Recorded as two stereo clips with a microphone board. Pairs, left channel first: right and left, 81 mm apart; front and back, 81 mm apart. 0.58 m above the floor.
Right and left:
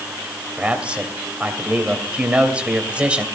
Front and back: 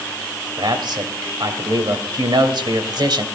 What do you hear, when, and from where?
0.6 s a man speaking: 165° left, 2.5 m